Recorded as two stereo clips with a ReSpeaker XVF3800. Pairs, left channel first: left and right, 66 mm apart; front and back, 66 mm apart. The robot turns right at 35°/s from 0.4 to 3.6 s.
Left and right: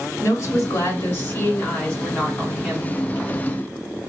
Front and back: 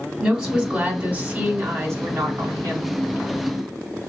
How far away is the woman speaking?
About 2.5 m.